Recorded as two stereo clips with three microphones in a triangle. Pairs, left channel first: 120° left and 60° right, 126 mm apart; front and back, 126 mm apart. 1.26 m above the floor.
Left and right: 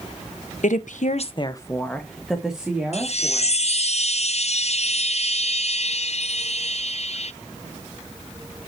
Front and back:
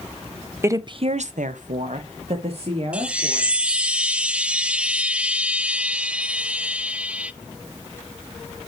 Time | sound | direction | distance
0.6 | a woman speaking | 110° left | 1.0 m
2.9 | a chime | 100° left | 0.5 m